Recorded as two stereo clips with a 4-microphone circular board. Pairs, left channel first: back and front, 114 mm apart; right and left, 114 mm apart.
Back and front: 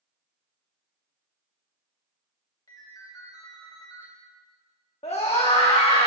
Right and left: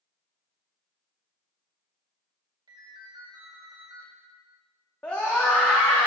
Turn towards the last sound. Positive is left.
turn(degrees=-165)